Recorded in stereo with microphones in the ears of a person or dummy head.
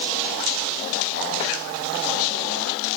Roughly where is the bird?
No bird in this recording.